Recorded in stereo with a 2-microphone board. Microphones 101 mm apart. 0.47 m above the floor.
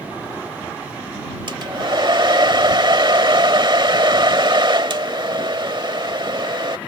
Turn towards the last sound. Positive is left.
turn(degrees=-50)  # may be behind; listen again after turning